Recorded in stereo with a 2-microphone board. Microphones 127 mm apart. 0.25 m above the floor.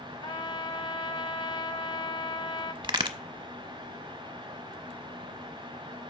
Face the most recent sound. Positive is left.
turn(degrees=-40)  # may be behind; listen again after turning